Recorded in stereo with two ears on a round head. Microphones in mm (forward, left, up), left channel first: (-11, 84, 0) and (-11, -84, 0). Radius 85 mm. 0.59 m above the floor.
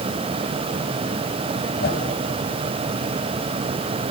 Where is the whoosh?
55° left (ahead or behind), 3.5 m.